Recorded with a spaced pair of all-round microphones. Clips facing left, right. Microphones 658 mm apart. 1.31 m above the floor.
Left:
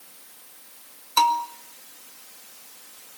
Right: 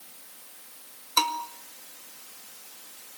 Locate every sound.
1.2 s a bell: 25° left (ahead or behind), 1.9 m